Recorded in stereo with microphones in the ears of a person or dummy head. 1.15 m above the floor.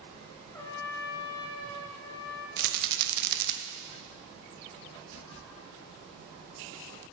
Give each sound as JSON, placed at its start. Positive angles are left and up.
{"t": 0.5, "sound": "a trumpet", "side_deg": 15, "distance_m": 1.5}
{"t": 2.6, "sound": "a rattle", "side_deg": -60, "distance_m": 0.9}